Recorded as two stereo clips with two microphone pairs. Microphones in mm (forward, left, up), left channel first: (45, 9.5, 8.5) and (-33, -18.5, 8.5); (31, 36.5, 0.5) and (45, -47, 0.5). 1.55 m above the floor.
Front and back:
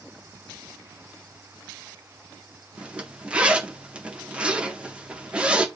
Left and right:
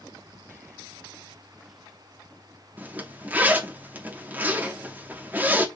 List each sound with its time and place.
2.8 s a zipper: 105° right, 0.8 m